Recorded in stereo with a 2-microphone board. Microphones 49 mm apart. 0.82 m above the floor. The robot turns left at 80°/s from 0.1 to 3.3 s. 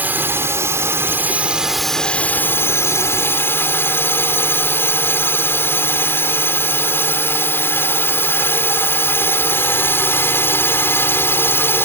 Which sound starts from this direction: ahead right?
A drone, at 0.0 s.